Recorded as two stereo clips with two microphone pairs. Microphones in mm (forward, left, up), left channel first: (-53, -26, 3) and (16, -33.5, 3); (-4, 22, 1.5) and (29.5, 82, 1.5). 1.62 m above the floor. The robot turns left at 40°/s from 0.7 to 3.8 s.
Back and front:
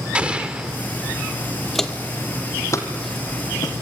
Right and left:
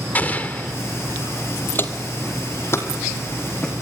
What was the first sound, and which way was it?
An explosion, 70° right.